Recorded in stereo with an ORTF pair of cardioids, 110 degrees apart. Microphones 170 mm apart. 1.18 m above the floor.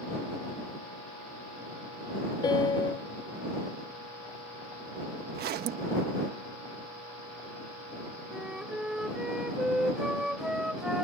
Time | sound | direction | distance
2.4 | a piano | 25° left | ?
5.3 | a zipper | 65° right | ?
8.3 | a flute | 5° right | ?